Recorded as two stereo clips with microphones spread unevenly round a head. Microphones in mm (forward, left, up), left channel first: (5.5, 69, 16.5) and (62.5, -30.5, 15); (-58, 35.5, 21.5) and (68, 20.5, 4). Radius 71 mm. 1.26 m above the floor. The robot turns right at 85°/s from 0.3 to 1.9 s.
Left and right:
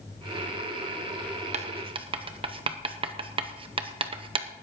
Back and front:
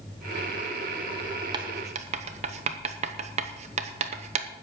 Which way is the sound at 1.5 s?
60° right.